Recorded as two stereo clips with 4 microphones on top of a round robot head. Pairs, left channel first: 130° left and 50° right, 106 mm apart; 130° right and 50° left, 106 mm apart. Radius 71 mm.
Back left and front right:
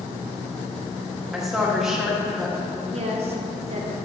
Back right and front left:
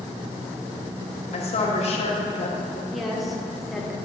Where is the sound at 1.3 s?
135° right, 1.6 m.